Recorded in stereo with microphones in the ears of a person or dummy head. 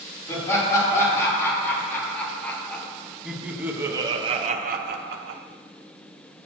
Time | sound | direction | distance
0.3 | laughter | 20° left (ahead or behind) | 3.5 m